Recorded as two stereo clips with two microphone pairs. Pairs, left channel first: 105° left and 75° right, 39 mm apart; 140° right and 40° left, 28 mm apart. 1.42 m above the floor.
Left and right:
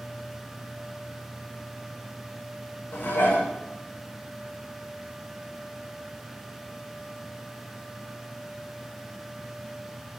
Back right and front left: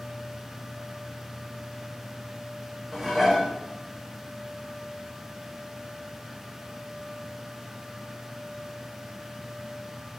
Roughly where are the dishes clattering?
Behind left.